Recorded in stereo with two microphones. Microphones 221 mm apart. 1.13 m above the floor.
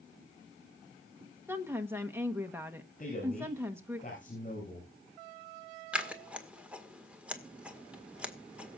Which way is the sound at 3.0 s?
40° left (ahead or behind).